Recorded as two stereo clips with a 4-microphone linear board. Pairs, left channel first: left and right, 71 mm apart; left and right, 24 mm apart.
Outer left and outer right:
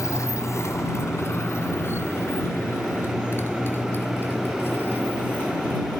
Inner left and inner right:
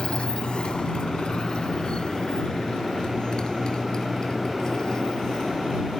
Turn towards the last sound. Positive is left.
turn(degrees=30)  # may be behind; listen again after turning